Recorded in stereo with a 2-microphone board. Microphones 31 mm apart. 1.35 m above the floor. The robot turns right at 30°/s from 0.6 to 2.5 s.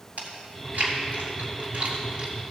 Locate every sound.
0.2 s chewing: 70° right (ahead or behind), 2.5 m; by 2.3 s 40° right (ahead or behind), 2.5 m